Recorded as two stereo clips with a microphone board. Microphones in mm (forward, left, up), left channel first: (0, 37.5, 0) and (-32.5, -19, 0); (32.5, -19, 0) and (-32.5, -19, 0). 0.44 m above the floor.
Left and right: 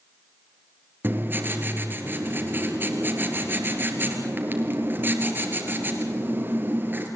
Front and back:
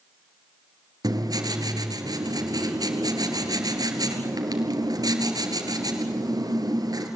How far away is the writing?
About 2.5 m.